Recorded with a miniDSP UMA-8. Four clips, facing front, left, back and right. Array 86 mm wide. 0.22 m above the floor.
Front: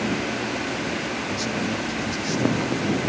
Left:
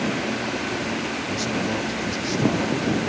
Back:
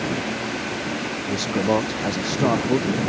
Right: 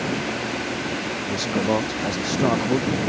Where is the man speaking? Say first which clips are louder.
Right 5 dB, back 9 dB; 150° right; by 3.1 s 145° right.